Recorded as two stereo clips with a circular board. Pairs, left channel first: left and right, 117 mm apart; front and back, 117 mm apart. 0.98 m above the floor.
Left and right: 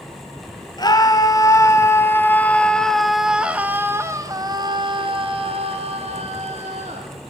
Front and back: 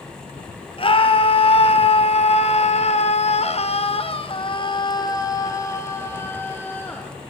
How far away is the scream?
About 2.5 m.